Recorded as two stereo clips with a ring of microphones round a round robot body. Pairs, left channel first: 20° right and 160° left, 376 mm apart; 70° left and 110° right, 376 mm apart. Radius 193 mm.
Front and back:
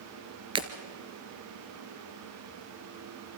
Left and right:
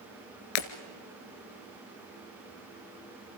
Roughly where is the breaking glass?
Left.